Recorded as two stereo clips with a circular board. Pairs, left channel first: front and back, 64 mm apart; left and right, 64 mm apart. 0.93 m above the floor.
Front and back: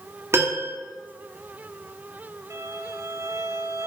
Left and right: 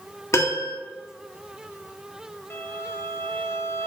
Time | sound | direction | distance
0.3 | a piano | 135° left | 1.8 m
2.5 | a violin | 140° left | 1.0 m